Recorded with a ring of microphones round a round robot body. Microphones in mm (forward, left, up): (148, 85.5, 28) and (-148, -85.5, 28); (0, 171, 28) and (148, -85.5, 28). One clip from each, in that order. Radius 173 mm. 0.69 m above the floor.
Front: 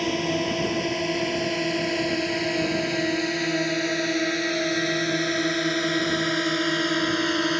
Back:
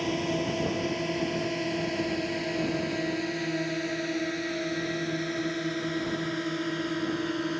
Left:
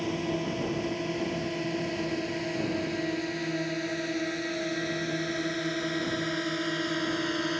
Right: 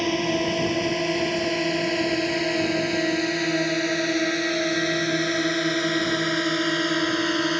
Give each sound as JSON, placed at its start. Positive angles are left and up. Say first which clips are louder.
{"t": 0.0, "sound": "a drone", "louder": "front 4 dB, right 8 dB", "azimuth_deg": -40}